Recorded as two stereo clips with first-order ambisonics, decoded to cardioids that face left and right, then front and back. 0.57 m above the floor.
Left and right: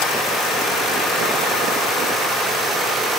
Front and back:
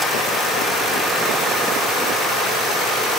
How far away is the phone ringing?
No phone ringing in this recording.